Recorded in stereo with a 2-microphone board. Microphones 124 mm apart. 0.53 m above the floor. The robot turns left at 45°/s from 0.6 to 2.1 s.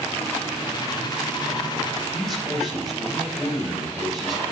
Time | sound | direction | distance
2.1 | a man speaking | centre (ahead or behind) | 2.5 m